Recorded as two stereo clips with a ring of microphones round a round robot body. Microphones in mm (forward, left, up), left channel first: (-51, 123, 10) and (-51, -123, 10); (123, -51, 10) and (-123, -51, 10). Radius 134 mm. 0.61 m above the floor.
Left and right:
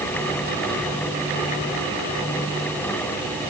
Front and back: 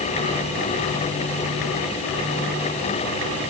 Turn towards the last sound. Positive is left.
No sound to turn to.